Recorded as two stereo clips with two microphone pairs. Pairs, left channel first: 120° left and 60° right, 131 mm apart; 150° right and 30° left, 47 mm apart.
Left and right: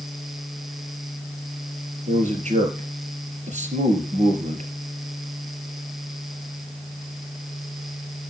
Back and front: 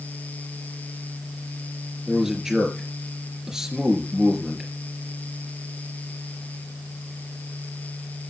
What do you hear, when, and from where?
2.1 s a man speaking: 45° right, 4 m